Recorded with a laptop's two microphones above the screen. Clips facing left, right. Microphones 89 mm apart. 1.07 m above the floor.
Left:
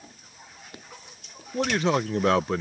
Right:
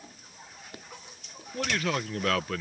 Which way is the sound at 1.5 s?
25° left (ahead or behind).